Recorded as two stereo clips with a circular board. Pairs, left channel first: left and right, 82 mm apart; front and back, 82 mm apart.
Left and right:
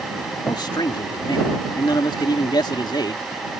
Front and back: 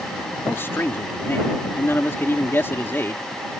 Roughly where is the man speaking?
Ahead left.